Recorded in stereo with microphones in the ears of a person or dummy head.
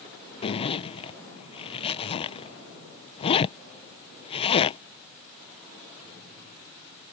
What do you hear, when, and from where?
0.4 s a zipper: 30° left (ahead or behind)